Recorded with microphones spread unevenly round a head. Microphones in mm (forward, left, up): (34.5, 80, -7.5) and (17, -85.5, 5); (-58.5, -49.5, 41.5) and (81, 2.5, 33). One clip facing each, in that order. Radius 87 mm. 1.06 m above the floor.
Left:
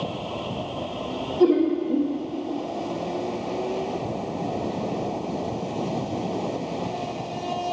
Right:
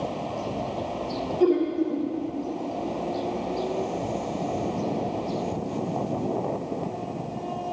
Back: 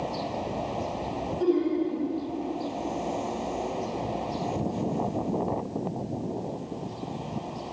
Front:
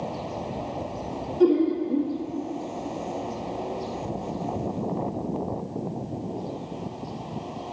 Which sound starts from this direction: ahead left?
Laughter, at 1.4 s.